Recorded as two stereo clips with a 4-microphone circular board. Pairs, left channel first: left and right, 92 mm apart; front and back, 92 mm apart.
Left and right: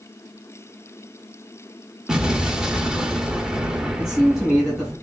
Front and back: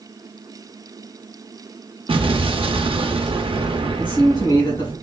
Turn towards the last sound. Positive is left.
turn(degrees=-10)